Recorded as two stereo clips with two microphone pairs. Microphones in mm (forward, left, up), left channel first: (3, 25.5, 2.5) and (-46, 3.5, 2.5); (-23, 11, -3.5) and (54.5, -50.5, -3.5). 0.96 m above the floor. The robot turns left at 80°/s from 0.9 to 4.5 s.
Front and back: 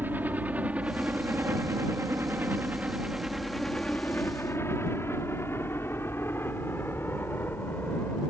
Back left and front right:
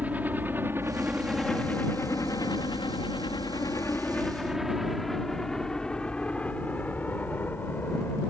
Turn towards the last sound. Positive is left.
turn(degrees=75)